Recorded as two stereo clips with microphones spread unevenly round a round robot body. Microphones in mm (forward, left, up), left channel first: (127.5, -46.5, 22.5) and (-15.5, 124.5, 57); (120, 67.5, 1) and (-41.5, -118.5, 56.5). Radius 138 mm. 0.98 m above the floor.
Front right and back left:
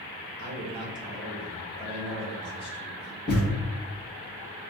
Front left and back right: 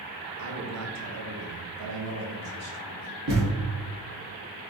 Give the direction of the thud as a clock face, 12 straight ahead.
5 o'clock.